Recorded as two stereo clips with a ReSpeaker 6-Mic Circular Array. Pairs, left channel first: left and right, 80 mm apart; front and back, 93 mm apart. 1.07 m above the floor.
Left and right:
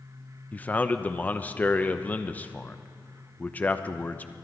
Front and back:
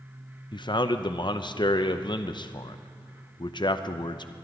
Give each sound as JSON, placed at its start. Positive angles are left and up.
{"t": 0.5, "sound": "a man speaking", "azimuth_deg": 20, "distance_m": 0.7}